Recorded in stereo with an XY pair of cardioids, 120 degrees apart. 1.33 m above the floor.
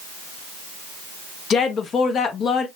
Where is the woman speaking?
50° left, 1.3 m.